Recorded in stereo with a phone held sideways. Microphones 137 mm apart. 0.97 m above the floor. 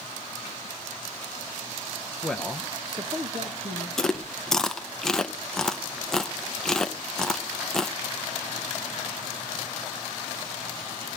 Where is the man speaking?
10° left (ahead or behind), 0.8 m; by 3.9 s 55° right (ahead or behind), 1.6 m.